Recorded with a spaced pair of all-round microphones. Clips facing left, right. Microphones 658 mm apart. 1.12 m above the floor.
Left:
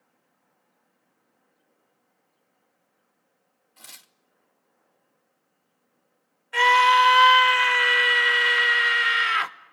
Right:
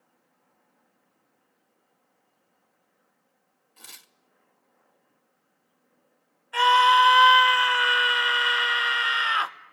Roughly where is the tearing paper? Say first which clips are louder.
Right 1 dB; centre.